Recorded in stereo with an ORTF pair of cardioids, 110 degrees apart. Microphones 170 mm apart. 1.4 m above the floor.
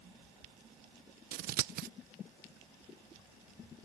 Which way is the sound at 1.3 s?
70° right.